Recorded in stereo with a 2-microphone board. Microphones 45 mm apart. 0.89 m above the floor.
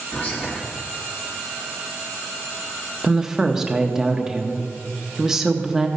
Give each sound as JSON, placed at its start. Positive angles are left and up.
{"t": 0.1, "sound": "whispering", "side_deg": 25, "distance_m": 1.2}
{"t": 3.0, "sound": "a woman speaking", "side_deg": -10, "distance_m": 1.1}